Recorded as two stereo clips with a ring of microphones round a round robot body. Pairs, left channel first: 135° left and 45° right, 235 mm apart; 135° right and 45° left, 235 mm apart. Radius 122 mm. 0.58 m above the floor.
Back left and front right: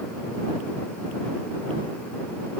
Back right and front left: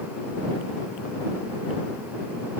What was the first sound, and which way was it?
Only background noise.